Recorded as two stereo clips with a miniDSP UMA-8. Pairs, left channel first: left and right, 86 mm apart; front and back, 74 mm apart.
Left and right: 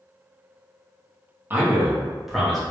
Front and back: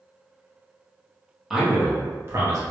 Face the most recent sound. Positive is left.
turn(degrees=175)